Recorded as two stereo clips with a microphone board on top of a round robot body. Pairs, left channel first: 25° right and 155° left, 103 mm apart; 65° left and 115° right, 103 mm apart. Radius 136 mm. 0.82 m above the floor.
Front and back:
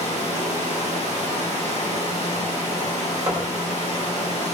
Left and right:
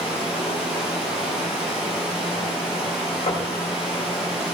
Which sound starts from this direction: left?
Knocking, at 3.3 s.